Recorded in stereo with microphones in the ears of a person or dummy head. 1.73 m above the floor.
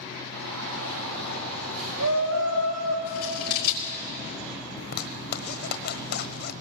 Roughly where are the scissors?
Left.